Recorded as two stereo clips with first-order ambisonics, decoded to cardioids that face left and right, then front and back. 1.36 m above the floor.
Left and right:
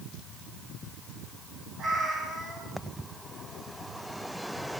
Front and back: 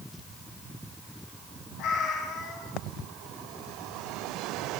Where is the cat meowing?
25° right, 2.0 m.